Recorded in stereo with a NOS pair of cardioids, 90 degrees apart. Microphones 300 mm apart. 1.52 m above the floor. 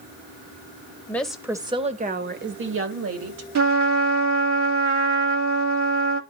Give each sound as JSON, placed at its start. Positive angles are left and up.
{"t": 1.1, "sound": "a woman speaking", "azimuth_deg": 5, "distance_m": 1.6}
{"t": 3.5, "sound": "a trumpet", "azimuth_deg": -60, "distance_m": 2.0}